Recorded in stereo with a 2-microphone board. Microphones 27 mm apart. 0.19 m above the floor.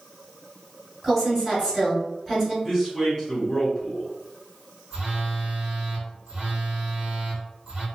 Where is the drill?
I don't hear a drill.